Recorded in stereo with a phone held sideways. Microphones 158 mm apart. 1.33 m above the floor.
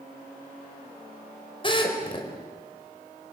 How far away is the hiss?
No hiss in this recording.